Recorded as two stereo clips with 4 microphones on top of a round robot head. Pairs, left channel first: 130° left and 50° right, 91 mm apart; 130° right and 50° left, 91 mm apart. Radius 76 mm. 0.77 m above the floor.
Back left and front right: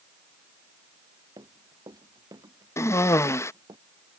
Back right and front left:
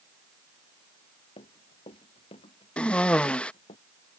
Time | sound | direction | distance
1.4 | running footsteps | 105° right | ?
2.8 | a cough | 160° left | ?